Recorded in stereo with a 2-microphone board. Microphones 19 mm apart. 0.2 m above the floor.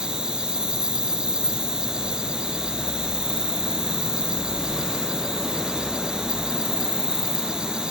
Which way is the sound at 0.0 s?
60° right (ahead or behind).